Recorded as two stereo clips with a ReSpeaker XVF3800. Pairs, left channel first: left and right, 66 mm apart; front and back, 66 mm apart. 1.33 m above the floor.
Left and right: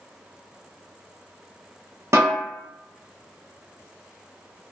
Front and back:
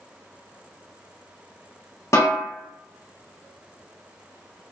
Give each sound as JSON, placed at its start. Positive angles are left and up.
{"t": 2.1, "sound": "a snare drum", "azimuth_deg": -45, "distance_m": 0.9}